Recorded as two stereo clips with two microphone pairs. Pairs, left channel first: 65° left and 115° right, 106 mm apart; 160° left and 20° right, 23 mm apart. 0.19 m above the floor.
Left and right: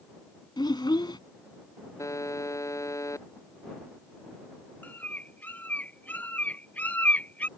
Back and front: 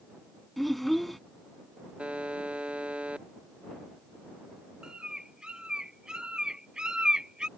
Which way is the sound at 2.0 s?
5° left.